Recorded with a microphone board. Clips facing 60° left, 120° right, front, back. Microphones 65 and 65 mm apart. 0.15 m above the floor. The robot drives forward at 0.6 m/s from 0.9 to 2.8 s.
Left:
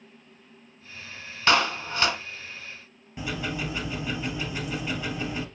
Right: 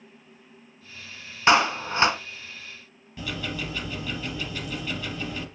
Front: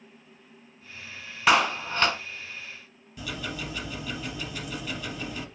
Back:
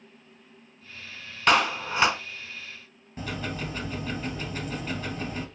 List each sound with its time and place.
1.5 s a clap: 75° right, 1.1 m; by 2.2 s 125° right, 1.1 m
3.2 s ticking: 130° left, 2 m